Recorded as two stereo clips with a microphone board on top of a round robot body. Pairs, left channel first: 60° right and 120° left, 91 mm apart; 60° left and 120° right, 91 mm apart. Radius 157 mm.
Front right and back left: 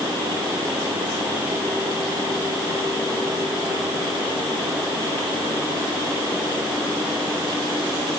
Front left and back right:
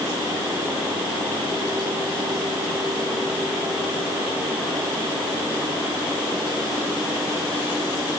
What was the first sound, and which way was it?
Only background noise.